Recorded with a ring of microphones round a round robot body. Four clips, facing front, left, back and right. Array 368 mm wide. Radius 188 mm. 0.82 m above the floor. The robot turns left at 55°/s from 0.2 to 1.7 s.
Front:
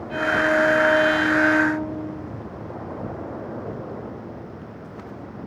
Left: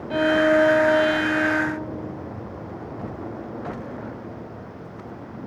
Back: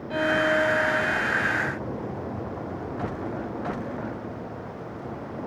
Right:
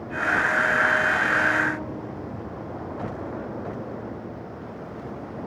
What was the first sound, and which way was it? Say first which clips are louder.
A violin: left 6 dB, front 2 dB; 95° left.